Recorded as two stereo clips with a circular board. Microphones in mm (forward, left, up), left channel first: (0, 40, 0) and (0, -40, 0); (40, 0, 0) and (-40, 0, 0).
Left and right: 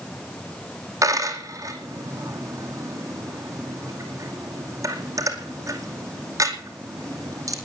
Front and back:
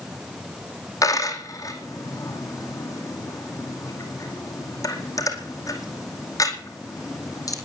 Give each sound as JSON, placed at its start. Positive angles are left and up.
{"t": 1.0, "sound": "a dropped coin", "azimuth_deg": -45, "distance_m": 2.5}